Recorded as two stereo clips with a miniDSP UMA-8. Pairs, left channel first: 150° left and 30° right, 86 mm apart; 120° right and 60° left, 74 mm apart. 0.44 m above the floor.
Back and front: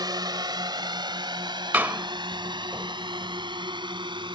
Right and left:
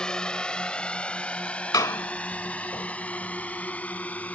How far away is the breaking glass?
No breaking glass in this recording.